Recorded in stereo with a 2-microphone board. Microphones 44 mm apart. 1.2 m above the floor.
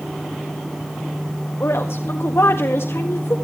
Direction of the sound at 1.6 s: 80° left.